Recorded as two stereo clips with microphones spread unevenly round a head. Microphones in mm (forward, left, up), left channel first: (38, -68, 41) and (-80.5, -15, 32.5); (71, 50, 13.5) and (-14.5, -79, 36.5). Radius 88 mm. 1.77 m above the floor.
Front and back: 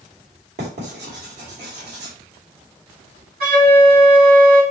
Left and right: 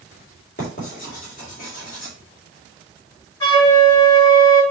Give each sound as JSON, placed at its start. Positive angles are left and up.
{"t": 0.6, "sound": "writing", "azimuth_deg": 105, "distance_m": 5.0}
{"t": 3.4, "sound": "a flute", "azimuth_deg": 130, "distance_m": 5.0}